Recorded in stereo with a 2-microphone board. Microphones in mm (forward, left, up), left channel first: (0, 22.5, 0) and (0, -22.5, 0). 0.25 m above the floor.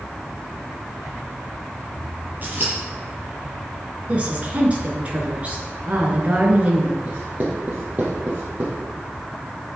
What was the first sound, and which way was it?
Scissors, 40° right (ahead or behind).